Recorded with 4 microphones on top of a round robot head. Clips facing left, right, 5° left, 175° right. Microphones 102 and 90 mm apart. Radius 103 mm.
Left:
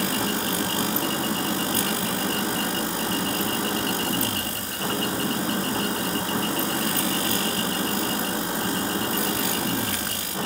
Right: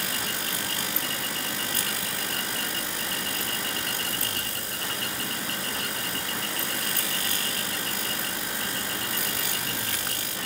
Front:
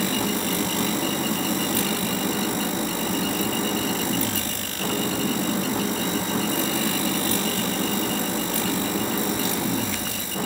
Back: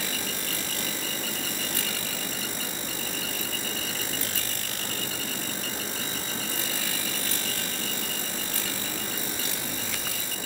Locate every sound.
0.0 s an engine running: 30° left